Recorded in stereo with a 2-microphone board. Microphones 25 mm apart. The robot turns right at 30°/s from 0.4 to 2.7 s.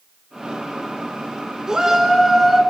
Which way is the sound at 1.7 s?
20° right (ahead or behind).